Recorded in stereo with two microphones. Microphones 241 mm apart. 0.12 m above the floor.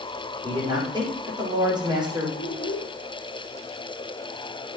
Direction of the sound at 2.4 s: 60° left (ahead or behind).